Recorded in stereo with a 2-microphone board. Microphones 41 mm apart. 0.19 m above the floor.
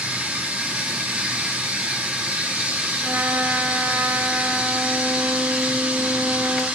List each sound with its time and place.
0.0 s running water: 20° right (ahead or behind), 7.5 m
3.0 s a trumpet: 60° right (ahead or behind), 3 m